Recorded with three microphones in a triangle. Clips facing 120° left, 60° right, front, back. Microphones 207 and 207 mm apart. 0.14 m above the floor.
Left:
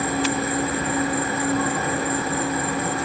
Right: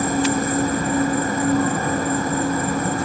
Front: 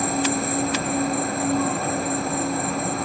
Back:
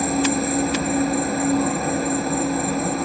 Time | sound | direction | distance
0.0 | an insect | 90° right | 0.8 m